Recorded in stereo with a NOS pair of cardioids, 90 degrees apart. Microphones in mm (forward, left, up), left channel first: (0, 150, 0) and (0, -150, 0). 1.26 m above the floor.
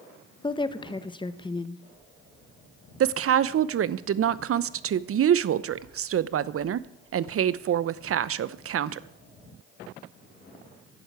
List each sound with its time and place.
0.4 s a woman speaking: 15° left, 1.1 m
3.0 s a woman speaking: 50° right, 0.8 m